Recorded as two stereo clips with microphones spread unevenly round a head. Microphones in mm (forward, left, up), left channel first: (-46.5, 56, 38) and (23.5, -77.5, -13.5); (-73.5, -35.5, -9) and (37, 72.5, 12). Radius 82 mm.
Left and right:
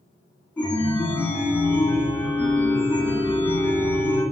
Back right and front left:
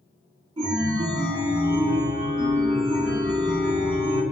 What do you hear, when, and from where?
0.6 s a chime: 75° left, 1.3 m